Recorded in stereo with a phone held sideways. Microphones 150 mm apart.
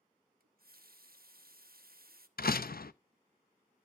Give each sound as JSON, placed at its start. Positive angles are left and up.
{"t": 0.4, "sound": "a running tap", "side_deg": -80, "distance_m": 0.8}
{"t": 2.4, "sound": "a door slam", "side_deg": 80, "distance_m": 0.5}